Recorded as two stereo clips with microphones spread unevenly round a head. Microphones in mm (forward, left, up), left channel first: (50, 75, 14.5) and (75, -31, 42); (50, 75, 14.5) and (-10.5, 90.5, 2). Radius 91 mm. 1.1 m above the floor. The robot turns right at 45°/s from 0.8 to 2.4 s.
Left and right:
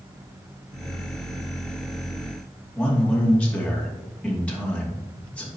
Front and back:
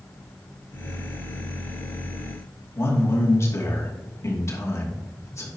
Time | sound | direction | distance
2.8 | a man speaking | 30° left | 2.5 m